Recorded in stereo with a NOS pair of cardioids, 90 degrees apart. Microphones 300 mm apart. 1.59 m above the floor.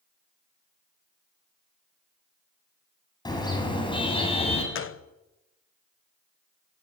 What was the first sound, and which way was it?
A car horn, 15° left.